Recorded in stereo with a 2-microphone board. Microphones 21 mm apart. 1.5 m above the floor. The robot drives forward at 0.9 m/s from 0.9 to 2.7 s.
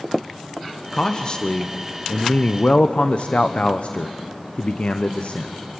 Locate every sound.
0.9 s a man speaking: 30° left (ahead or behind), 1.4 m; by 5.5 s 55° left (ahead or behind), 0.9 m